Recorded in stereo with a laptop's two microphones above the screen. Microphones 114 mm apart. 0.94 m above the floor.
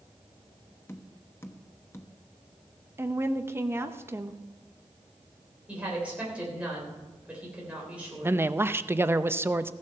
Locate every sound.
0.9 s tapping: 20° left (ahead or behind), 1.0 m
3.0 s a woman speaking: 20° right (ahead or behind), 0.7 m
5.7 s a woman speaking: 10° right (ahead or behind), 3.5 m
8.2 s a man speaking: 20° right (ahead or behind), 0.6 m